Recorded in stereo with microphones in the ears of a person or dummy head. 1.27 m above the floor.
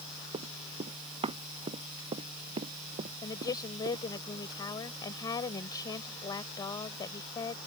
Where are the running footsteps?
25° right (ahead or behind); by 4.0 s 30° right (ahead or behind).